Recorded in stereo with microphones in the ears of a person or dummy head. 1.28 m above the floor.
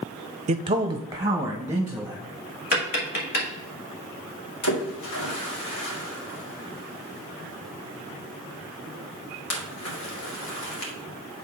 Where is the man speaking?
35° right (ahead or behind), 0.5 m; by 2.2 s 10° right (ahead or behind), 2.5 m.